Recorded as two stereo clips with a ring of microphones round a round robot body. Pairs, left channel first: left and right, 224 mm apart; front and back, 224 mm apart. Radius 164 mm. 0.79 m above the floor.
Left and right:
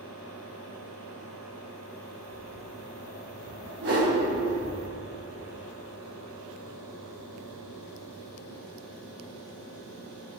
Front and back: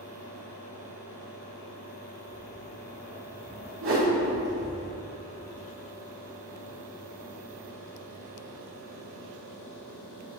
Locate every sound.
2.3 s footsteps: 30° right, 1.6 m; by 4.8 s 155° left, 1.7 m
3.8 s a whoosh: 140° right, 0.6 m